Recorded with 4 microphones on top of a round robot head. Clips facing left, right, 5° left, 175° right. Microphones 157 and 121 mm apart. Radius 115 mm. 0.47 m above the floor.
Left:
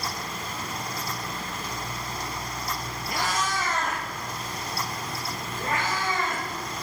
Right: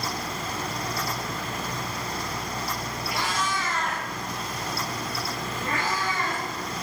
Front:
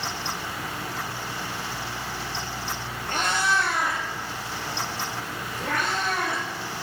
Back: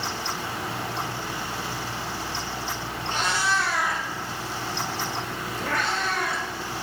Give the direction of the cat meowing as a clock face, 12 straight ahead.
11 o'clock.